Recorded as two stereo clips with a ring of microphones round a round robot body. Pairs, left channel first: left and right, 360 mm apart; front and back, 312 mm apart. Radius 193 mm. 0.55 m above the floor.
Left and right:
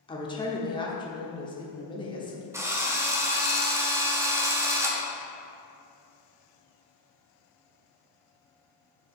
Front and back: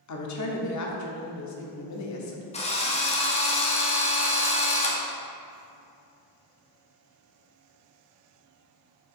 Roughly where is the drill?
Ahead.